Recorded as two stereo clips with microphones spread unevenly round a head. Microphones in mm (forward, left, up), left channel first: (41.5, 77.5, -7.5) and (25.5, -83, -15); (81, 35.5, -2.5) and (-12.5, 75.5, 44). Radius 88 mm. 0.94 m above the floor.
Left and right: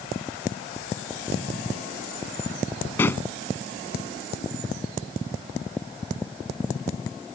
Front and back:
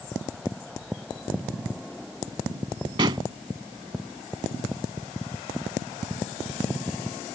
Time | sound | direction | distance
3.0 | a pop | 160° left | ?